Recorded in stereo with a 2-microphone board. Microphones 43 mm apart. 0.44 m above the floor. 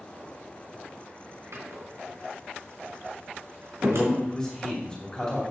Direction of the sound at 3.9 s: 20° left (ahead or behind).